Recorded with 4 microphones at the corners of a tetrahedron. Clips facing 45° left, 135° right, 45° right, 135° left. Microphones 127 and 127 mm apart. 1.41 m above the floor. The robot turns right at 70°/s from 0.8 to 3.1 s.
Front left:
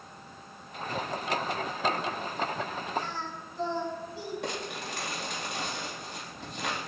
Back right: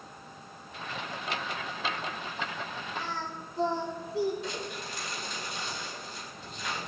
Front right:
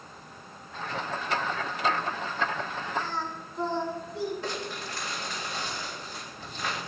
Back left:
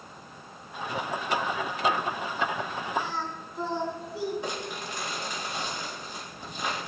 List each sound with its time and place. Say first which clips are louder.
3.0 s singing: front left 1 dB, even; 145° right, 4.5 m; by 4.3 s 140° right, 4.5 m
4.4 s crumpling: front left 1 dB, even; 60° left, 3.5 m